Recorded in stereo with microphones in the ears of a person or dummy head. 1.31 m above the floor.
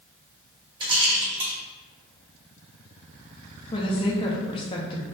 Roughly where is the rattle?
Right.